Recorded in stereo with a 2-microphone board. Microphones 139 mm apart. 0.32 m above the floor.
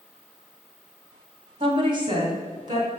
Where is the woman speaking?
40° right (ahead or behind), 2 m; by 2.9 s 30° right (ahead or behind), 3 m.